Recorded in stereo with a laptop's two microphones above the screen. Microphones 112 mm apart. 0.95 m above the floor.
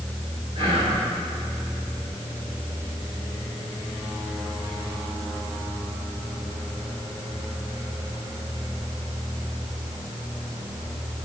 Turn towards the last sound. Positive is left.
turn(degrees=-55)  # may be behind; listen again after turning